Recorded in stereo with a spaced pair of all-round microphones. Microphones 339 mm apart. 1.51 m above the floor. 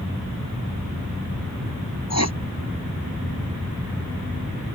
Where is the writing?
50° left (ahead or behind).